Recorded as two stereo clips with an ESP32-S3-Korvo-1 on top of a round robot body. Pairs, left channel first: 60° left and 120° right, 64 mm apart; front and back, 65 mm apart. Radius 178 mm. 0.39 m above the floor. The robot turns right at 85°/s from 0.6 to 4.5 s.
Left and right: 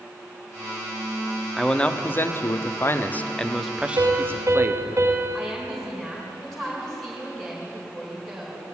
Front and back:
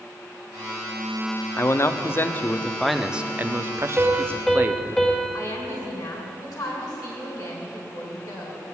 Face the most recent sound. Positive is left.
turn(degrees=-25)